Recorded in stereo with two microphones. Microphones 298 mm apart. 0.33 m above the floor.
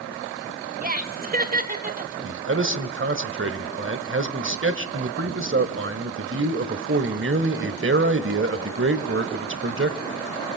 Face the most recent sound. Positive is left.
turn(degrees=-45)  # may be behind; listen again after turning